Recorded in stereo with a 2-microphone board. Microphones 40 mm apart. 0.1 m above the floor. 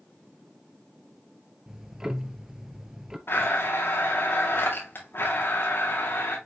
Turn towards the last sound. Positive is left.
turn(degrees=65)  # may be behind; listen again after turning